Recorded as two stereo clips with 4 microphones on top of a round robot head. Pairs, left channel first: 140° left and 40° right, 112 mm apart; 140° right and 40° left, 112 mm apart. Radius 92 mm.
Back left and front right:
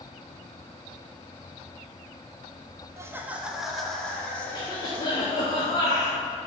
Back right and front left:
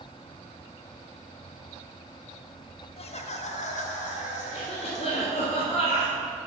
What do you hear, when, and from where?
3.0 s laughter: 105° right, 1.1 m; by 5.5 s 150° right, 3 m
4.5 s a cough: 165° right, 2.0 m